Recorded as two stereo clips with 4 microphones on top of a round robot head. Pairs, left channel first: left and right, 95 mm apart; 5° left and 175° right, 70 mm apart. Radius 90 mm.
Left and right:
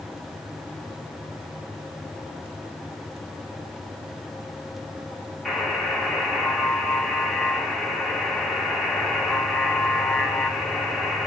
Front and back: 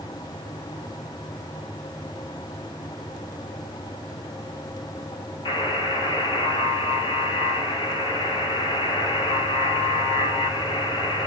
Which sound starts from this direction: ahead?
A buzzer, at 5.5 s.